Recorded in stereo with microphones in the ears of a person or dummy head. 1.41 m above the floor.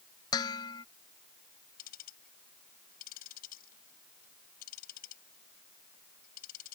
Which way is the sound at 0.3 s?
20° left (ahead or behind).